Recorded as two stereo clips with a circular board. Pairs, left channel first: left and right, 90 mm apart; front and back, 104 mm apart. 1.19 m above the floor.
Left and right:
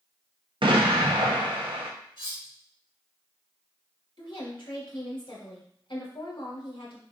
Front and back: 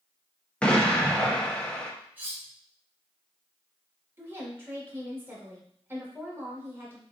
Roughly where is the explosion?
Right.